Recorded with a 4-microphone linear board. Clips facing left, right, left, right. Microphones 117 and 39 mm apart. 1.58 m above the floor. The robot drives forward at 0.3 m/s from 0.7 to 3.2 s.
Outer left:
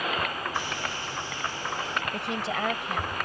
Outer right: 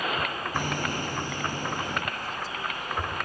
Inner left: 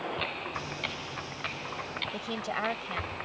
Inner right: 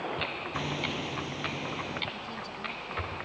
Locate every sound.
0.5 s hammering: 50° right (ahead or behind)
2.1 s a woman speaking: 75° left (ahead or behind)